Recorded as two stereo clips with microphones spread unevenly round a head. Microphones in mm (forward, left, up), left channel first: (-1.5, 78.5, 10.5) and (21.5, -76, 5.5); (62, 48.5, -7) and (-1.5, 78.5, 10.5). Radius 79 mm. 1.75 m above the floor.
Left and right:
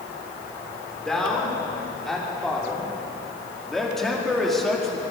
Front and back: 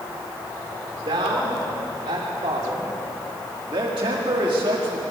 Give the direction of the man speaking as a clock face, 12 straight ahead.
6 o'clock.